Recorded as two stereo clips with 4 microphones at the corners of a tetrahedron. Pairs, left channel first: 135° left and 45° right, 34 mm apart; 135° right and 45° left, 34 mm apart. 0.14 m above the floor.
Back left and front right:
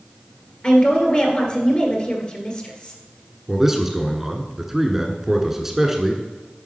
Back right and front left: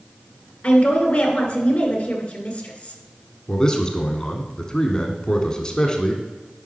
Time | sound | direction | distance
0.6 | a woman speaking | straight behind | 1.8 m
3.5 | a man speaking | 105° right | 1.1 m